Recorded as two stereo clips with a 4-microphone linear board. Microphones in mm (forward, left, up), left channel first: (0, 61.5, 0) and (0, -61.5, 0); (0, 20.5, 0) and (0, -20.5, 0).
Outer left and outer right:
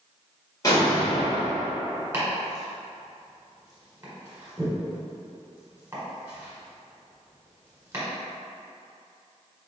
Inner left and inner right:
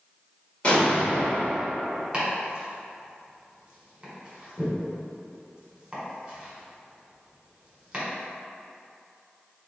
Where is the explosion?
30° left (ahead or behind), 1.4 m.